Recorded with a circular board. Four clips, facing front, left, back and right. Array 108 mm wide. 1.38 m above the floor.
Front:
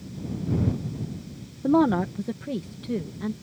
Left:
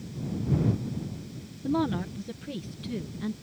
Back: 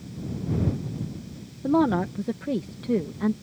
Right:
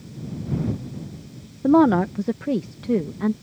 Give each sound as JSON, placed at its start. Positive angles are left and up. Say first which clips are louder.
{"t": 1.6, "sound": "a woman speaking", "louder": "right 12 dB, front 1 dB", "azimuth_deg": -85}